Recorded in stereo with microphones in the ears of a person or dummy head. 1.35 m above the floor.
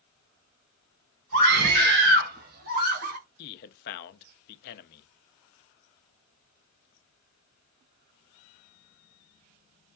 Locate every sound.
1.3 s a scream: 55° right (ahead or behind), 2 m; by 3.2 s 50° right (ahead or behind), 1.2 m
3.4 s a man speaking: 50° left (ahead or behind), 0.5 m